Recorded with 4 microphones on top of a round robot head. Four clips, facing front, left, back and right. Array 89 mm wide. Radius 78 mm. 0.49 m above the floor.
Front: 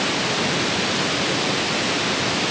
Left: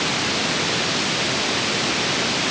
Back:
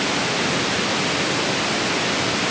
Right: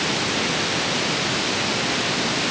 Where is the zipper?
No zipper in this recording.